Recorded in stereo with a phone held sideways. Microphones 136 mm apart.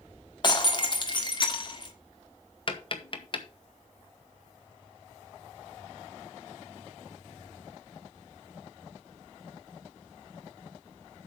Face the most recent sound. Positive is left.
turn(degrees=40)  # may be behind; listen again after turning